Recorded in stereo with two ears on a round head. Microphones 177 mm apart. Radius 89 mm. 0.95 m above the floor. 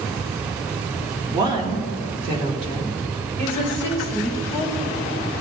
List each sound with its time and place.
1.3 s a woman speaking: 20° right (ahead or behind), 1.8 m; by 5.0 s 40° right (ahead or behind), 5.5 m